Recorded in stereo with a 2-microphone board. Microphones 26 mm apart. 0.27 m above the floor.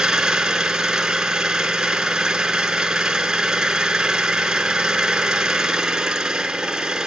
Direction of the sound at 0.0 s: 25° right (ahead or behind).